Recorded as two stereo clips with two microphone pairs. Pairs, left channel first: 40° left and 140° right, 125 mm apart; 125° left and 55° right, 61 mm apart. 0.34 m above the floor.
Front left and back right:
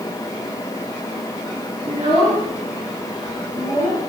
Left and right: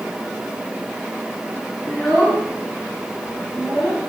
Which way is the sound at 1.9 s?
170° right.